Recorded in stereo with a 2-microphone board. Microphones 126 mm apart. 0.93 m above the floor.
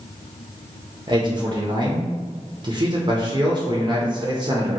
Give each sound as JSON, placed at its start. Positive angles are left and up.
{"t": 1.1, "sound": "a man speaking", "side_deg": -35, "distance_m": 0.5}